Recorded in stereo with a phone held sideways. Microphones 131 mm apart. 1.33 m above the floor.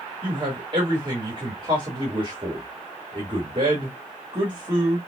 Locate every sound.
0.2 s a man speaking: 35° right (ahead or behind), 1.8 m